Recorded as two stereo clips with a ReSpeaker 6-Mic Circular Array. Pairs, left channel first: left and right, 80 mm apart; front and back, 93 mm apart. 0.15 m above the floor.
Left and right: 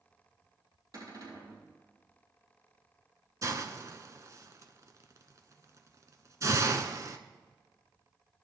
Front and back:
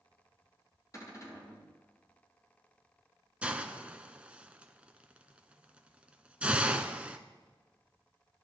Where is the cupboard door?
50° right, 4 m.